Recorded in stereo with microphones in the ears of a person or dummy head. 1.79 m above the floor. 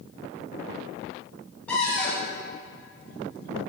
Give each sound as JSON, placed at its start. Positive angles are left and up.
{"t": 1.7, "sound": "a cupboard door", "side_deg": 10, "distance_m": 1.7}